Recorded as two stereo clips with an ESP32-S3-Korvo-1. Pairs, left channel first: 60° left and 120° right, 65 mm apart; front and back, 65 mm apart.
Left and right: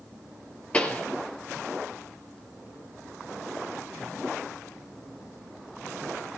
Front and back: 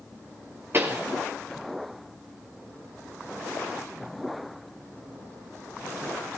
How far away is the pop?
About 3 m.